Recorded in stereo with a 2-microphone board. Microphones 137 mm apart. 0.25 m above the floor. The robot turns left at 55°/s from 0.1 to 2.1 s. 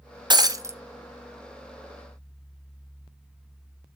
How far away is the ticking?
I don't hear ticking.